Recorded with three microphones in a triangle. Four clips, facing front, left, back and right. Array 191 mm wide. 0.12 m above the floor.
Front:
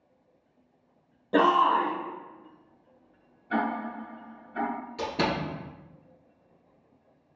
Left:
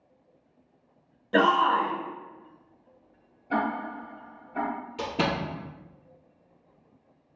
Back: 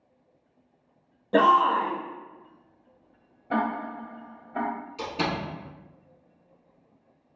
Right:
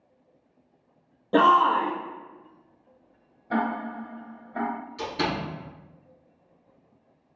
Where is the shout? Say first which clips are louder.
Right 3 dB, back 2 dB; 90° right, 1.2 m.